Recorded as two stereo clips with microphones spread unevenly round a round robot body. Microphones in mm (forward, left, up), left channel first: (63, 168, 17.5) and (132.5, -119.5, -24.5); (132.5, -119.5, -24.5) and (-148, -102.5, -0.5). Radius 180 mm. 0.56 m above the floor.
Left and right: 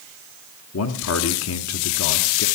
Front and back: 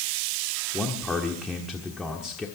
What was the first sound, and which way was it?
A man speaking, 85° left.